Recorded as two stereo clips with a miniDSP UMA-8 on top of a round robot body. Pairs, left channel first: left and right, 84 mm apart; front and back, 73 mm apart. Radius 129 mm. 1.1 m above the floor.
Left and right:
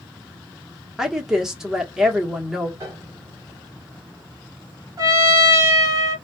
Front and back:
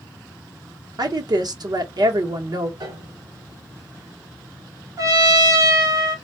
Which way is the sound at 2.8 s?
140° right.